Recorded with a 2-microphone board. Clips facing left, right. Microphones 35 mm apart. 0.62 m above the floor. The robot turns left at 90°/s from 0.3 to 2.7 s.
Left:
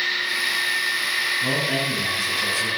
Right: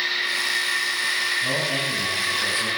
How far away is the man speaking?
About 8.5 m.